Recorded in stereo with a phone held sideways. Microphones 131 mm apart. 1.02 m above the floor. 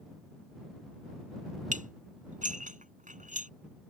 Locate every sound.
1.7 s dishes clattering: 75° right (ahead or behind)